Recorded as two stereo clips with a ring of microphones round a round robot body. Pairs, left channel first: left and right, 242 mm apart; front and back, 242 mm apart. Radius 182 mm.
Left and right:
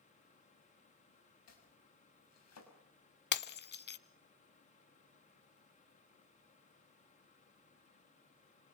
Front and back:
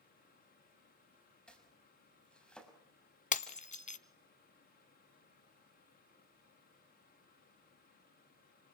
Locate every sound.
1.5 s chopping: 85° left, 6.5 m
3.3 s breaking glass: 55° left, 1.0 m